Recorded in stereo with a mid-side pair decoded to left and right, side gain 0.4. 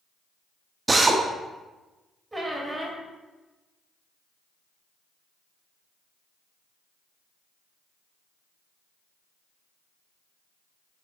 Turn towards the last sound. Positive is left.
turn(degrees=-15)